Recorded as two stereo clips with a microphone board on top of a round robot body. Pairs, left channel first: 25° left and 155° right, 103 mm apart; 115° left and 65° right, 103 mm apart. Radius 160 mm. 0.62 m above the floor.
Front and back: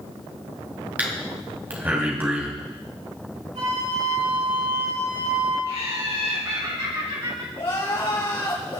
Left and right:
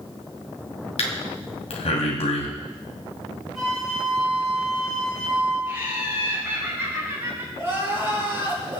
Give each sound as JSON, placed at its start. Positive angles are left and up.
{"t": 1.0, "sound": "breathing", "azimuth_deg": 130, "distance_m": 2.5}
{"t": 3.5, "sound": "a flute", "azimuth_deg": -155, "distance_m": 8.0}
{"t": 5.7, "sound": "laughter", "azimuth_deg": -135, "distance_m": 4.5}
{"t": 7.6, "sound": "crying", "azimuth_deg": -5, "distance_m": 5.5}